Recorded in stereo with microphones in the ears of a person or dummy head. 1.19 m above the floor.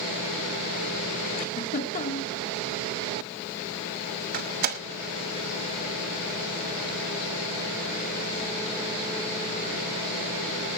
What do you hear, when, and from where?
1.4 s a giggle: 50° left (ahead or behind), 2.0 m
4.3 s a door slam: 50° right (ahead or behind), 1.6 m